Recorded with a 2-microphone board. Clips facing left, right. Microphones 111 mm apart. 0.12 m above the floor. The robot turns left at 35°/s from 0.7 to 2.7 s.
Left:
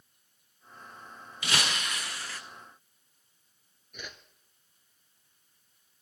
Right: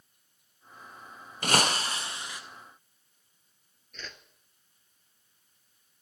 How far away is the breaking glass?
About 0.9 m.